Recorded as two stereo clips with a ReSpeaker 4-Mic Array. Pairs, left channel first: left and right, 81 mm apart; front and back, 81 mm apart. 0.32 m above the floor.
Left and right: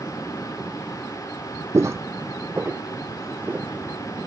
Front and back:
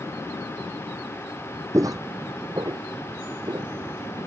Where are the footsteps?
135° right; by 3.7 s 155° right.